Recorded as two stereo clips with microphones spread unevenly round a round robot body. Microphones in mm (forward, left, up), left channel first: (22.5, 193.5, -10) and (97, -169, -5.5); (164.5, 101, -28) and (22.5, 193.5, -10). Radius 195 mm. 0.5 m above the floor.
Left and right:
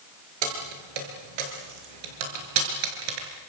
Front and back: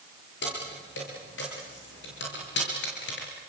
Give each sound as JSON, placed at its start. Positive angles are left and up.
{"t": 0.4, "sound": "keys jangling", "azimuth_deg": -75, "distance_m": 5.5}